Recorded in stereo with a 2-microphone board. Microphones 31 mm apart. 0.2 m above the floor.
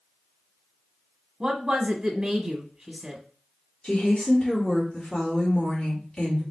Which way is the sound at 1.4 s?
25° right (ahead or behind).